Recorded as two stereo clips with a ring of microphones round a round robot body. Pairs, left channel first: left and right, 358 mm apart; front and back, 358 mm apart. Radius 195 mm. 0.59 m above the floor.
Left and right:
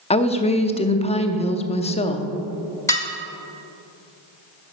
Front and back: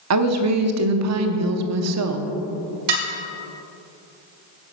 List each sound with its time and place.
0.1 s a woman speaking: 160° left, 0.7 m
2.9 s dishes clattering: 170° left, 1.5 m